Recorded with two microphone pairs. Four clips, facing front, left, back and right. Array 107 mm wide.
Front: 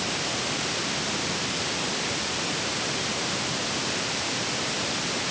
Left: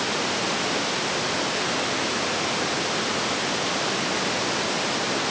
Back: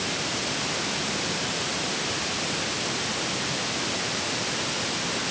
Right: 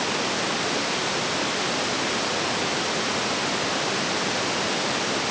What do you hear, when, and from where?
Only background noise.